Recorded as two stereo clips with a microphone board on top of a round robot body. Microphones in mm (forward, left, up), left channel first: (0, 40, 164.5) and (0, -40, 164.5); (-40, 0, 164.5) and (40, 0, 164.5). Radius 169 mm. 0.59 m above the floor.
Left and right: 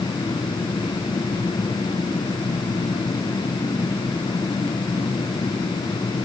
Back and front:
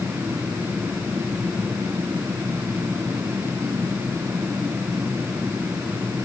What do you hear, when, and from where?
Only background noise.